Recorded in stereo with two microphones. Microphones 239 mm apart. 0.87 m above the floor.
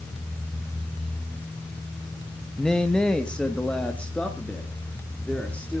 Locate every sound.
2.6 s a man speaking: 5° left (ahead or behind), 1.2 m